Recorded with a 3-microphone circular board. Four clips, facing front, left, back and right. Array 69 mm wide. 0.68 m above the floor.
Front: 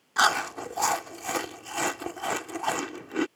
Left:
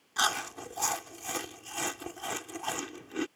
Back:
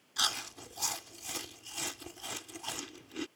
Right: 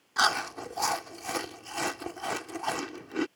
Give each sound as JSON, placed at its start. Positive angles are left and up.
{"t": 0.2, "sound": "chewing", "azimuth_deg": -15}